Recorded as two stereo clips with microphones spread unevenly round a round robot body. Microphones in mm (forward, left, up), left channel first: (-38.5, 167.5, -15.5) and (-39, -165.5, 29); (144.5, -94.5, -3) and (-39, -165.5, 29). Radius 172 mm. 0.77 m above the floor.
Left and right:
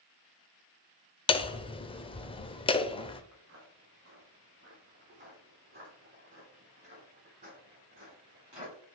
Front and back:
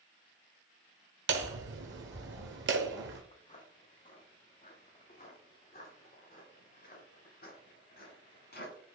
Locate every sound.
1.3 s hammering: 165° left, 0.8 m
3.3 s footsteps: 35° right, 3 m; by 8.8 s 15° right, 6.5 m